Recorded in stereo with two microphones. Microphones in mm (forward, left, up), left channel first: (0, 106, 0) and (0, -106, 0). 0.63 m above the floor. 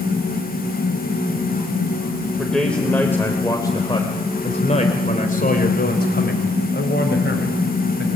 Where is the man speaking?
Centre (ahead or behind), 2.5 m; by 8.1 s 65° left (ahead or behind), 4 m.